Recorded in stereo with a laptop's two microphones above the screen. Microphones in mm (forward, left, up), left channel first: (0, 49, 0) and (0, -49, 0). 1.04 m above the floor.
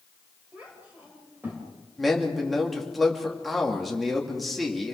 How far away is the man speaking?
About 2.5 m.